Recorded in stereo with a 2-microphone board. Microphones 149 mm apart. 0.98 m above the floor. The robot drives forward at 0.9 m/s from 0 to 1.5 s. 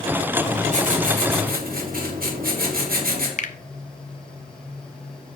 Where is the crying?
No crying in this recording.